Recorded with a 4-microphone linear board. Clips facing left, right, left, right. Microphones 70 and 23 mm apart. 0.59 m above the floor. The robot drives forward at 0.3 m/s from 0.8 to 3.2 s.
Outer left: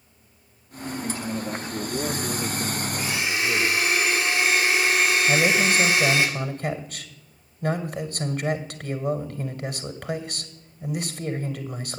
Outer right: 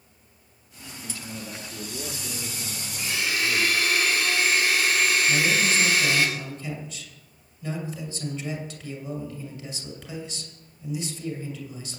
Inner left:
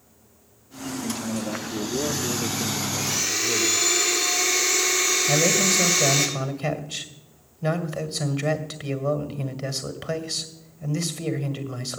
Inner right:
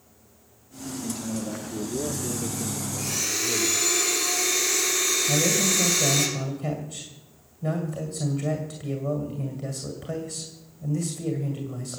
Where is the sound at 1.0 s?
40° left (ahead or behind), 0.9 m; by 3.9 s 35° left (ahead or behind), 1.1 m.